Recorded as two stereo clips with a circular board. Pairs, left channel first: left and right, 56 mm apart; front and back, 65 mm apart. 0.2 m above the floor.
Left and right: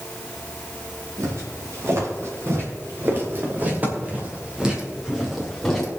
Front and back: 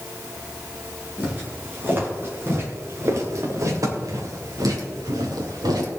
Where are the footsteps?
120° right, 4.5 m; by 5.9 s 175° left, 3 m.